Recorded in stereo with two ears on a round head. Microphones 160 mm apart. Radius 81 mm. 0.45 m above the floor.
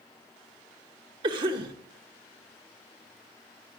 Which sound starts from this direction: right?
A cough, at 1.2 s.